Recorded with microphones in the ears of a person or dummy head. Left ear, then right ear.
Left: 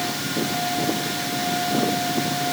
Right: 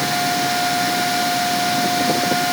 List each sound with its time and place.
Only background noise.